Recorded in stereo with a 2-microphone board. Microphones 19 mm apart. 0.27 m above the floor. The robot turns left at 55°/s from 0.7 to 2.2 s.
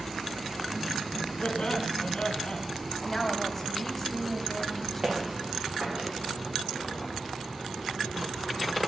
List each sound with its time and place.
1.4 s laughter: 115° left, 1.4 m; by 2.6 s 70° left, 1.4 m
3.0 s a woman speaking: 15° left (ahead or behind), 1.9 m
5.0 s footsteps: 55° right (ahead or behind), 8 m; by 6.1 s 65° right (ahead or behind), 8 m